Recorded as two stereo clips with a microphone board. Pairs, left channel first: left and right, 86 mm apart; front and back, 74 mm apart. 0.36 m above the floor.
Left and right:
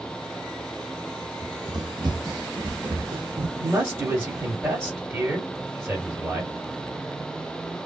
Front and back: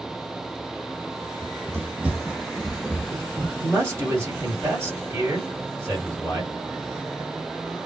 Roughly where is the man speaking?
Behind right.